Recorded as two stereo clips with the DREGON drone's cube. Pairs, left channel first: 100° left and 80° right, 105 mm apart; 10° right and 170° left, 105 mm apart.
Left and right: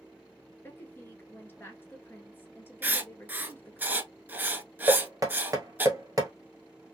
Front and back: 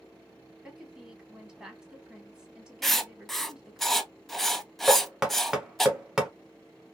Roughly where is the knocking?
Right.